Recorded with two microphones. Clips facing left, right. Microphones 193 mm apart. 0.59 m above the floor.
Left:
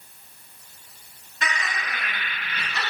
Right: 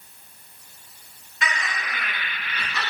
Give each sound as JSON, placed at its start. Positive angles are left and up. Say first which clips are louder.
{"t": 1.4, "sound": "laughter", "louder": "right 1 dB", "side_deg": 40, "distance_m": 1.6}